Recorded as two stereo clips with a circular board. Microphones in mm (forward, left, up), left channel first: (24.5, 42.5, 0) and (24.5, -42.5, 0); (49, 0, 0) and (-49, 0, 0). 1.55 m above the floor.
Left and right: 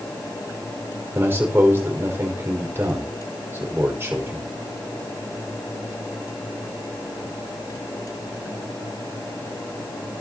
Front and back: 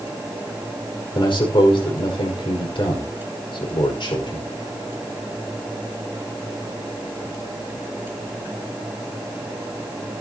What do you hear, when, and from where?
1.1 s a man speaking: 30° right, 5.5 m